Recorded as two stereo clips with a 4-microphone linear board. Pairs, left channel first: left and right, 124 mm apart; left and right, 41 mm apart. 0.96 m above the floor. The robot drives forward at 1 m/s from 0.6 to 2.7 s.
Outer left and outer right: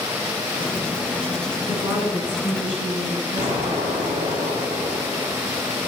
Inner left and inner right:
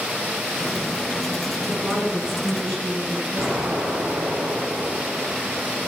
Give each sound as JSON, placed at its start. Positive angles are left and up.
{"t": 1.7, "sound": "a woman speaking", "side_deg": -10, "distance_m": 9.0}
{"t": 3.4, "sound": "an explosion", "side_deg": -40, "distance_m": 9.0}